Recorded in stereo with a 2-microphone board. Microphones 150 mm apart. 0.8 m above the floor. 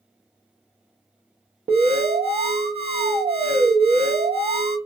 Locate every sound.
1.7 s an alarm: 45° right (ahead or behind), 0.7 m